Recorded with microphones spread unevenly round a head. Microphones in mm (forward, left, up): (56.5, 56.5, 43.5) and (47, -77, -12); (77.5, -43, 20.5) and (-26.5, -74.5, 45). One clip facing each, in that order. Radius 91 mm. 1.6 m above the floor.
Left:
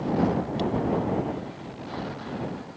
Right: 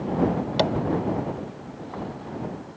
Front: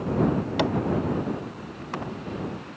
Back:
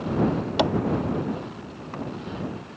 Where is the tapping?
110° right.